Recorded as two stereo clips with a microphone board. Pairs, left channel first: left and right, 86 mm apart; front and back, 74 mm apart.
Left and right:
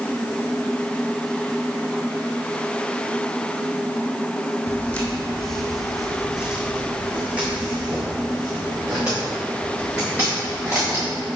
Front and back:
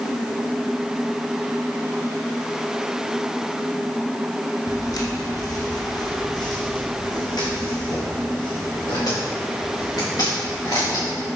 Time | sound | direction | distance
4.7 | footsteps | 25° left | 1.5 m